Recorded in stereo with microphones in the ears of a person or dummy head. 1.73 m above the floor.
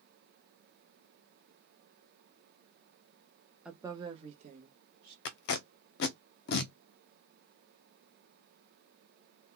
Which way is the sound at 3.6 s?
5° right (ahead or behind).